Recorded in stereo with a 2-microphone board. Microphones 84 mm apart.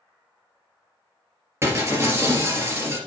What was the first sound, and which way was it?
Breaking glass, 30° right (ahead or behind).